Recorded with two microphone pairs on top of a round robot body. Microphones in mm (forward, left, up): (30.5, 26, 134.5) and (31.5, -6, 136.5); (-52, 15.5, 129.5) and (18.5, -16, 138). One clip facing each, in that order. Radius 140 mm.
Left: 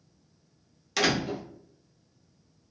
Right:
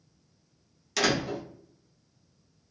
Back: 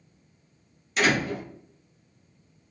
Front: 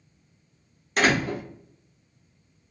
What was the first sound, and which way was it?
A door slam, 15° left.